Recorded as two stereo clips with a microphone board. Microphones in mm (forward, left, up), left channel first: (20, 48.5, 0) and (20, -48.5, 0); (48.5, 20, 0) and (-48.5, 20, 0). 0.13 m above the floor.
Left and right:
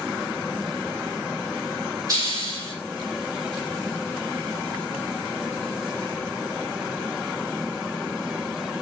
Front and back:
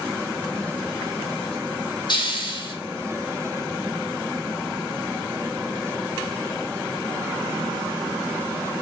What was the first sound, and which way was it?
A hiss, 40° right.